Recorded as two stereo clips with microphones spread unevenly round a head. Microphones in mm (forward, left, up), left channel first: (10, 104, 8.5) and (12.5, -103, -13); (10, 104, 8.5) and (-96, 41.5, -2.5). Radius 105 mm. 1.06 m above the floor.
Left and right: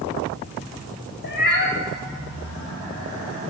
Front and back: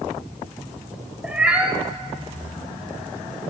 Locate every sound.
1.2 s a cat meowing: 125° left, 2 m